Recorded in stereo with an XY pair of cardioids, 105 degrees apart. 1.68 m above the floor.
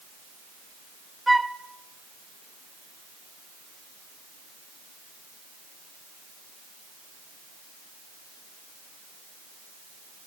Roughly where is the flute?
Ahead.